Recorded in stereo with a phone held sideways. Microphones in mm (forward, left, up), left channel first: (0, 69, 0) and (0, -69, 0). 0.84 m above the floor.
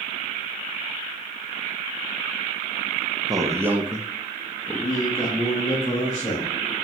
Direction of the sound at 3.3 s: 25° right (ahead or behind).